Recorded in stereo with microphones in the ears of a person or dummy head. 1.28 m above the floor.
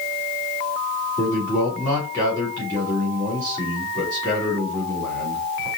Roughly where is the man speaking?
Centre.